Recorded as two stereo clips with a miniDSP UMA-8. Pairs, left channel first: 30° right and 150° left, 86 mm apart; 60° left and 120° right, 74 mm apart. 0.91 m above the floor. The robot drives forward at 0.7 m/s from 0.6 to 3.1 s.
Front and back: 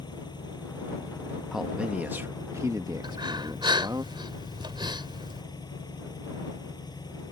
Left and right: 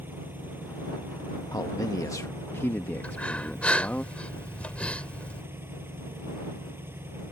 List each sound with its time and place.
0.0 s an engine running: 60° right; by 7.3 s 65° right
1.5 s a man speaking: 65° left; by 4.0 s 125° left
3.0 s breathing: 130° left